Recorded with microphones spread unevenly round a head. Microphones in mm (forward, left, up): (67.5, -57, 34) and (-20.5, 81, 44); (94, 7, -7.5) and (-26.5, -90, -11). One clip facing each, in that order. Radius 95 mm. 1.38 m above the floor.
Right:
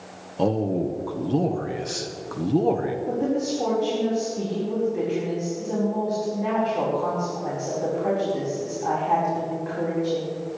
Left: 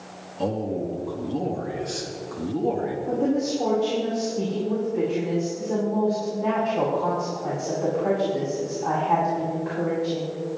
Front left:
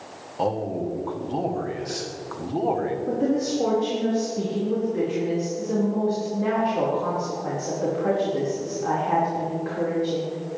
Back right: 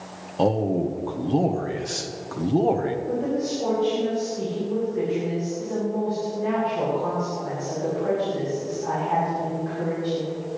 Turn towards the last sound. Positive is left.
turn(degrees=30)